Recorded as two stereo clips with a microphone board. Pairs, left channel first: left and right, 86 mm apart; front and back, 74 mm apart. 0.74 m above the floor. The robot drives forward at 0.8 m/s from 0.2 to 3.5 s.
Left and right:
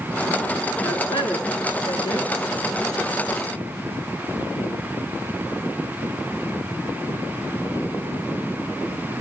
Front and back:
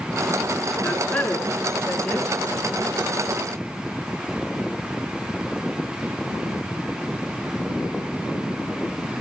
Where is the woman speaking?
75° left, 8.5 m; by 2.3 s 85° left, 8.5 m.